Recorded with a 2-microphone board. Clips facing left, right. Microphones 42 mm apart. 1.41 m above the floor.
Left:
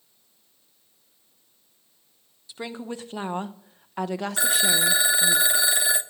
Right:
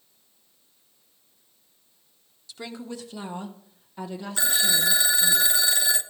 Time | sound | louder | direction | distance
2.5 | a woman speaking | left 3 dB | 25° left (ahead or behind) | 1.1 m
4.4 | a phone ringing | left 1 dB | 15° left (ahead or behind) | 0.6 m